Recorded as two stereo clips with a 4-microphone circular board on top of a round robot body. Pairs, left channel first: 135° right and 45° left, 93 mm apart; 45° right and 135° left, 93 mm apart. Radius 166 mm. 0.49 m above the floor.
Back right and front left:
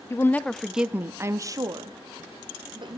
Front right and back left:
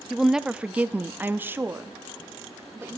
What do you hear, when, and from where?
0.1 s a woman speaking: 140° right, 0.7 m; by 3.0 s 70° left, 1.4 m